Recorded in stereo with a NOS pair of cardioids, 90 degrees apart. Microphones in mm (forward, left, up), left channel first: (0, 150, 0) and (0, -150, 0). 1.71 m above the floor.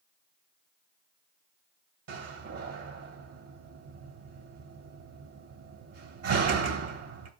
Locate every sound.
2.1 s a door slam: 65° right, 2 m